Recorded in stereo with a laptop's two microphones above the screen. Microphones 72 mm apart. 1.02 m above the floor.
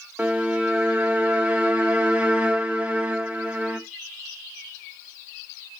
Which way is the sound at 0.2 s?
20° right (ahead or behind).